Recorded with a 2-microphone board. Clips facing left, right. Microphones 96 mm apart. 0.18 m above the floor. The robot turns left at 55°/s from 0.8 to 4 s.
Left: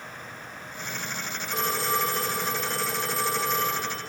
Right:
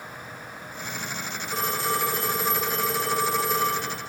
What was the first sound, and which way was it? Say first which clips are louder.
A phone ringing: right 1 dB; 25° right.